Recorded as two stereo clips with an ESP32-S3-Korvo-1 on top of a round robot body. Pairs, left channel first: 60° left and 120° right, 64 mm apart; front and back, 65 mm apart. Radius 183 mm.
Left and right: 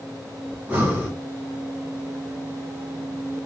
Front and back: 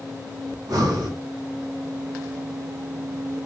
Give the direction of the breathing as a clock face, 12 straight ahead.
6 o'clock.